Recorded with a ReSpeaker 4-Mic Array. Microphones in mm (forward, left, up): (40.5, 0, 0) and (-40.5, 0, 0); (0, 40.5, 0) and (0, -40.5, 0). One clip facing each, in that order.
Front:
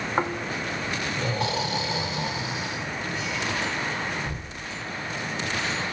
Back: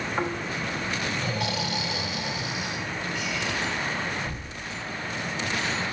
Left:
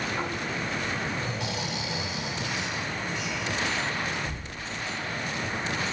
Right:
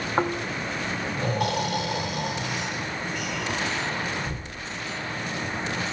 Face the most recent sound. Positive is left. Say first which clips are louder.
# front 3 dB, right 5 dB
turn(degrees=-55)